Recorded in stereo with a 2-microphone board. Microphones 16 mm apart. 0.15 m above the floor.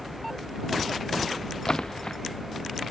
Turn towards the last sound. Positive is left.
turn(degrees=55)  # may be behind; listen again after turning